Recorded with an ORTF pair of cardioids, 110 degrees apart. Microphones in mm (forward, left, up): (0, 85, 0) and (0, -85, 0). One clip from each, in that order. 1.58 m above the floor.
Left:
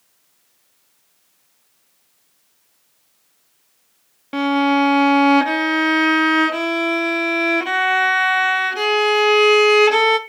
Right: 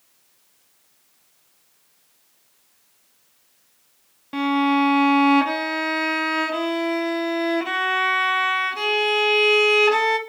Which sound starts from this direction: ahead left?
A violin, at 4.3 s.